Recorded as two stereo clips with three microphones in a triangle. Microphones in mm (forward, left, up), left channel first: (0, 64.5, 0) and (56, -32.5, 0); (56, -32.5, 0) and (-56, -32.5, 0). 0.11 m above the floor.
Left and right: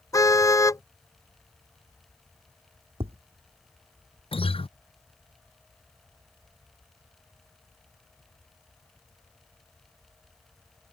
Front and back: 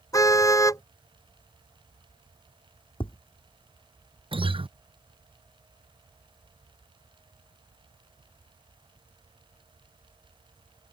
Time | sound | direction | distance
0.1 | a car horn | 60° left | ?
3.0 | tapping | 35° right | ?
4.3 | a guitar | 150° left | ?